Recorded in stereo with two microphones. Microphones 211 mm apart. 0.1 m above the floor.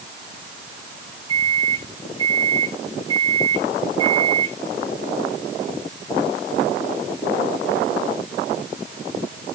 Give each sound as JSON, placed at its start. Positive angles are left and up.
{"t": 1.3, "sound": "a microwave", "side_deg": -20, "distance_m": 3.5}